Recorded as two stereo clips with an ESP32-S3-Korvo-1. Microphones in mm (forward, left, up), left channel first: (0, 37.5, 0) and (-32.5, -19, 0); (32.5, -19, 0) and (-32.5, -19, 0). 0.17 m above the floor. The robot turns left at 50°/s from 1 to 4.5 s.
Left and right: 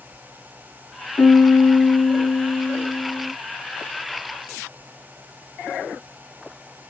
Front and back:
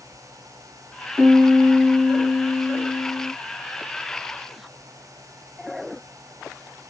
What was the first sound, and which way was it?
A piano, 100° left.